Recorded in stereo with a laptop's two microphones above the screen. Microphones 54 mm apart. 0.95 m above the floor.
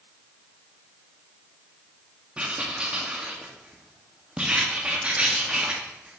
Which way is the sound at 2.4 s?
20° right (ahead or behind).